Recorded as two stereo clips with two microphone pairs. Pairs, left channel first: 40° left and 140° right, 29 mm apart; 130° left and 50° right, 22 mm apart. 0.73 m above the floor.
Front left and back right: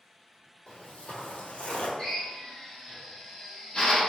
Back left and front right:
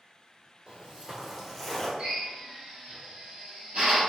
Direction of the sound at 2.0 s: 25° right.